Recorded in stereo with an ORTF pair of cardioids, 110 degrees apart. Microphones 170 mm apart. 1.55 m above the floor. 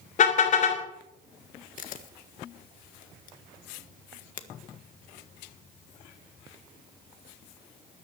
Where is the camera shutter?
50° left, 1.5 m.